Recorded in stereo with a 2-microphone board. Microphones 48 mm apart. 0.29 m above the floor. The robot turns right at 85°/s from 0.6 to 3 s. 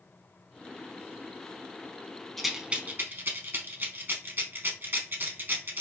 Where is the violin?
I don't hear a violin.